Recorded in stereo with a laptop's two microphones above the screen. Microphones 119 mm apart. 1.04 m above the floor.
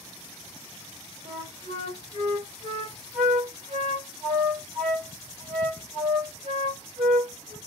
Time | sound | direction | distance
1.2 | a flute | 55° right (ahead or behind) | 1.5 m